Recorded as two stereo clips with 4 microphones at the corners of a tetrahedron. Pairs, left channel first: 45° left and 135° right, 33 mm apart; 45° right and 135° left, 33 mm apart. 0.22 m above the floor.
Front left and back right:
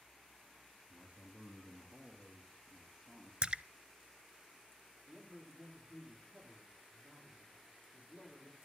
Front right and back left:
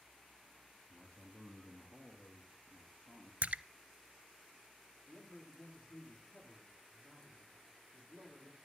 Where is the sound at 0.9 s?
75° right, 5 m; by 3.3 s 50° right, 5 m.